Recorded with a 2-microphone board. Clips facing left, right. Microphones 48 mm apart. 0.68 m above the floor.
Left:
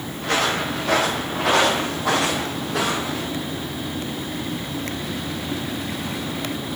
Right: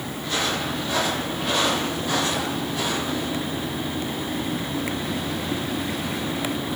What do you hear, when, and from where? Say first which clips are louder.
0.2 s footsteps: left 5 dB; 70° left (ahead or behind), 4 m; by 3.3 s 85° left, 5.5 m